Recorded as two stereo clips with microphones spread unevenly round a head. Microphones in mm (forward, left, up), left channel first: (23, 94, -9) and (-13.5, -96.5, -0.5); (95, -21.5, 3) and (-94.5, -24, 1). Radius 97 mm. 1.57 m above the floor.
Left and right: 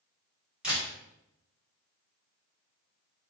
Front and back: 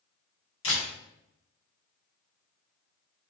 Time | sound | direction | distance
0.6 | a camera shutter | 25° right | 1.5 m